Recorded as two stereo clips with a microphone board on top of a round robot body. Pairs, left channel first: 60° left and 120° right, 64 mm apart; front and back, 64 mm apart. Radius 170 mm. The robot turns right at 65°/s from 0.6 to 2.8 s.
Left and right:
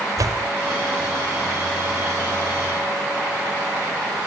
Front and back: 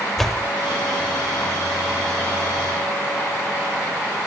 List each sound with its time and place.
0.2 s a door slam: 85° right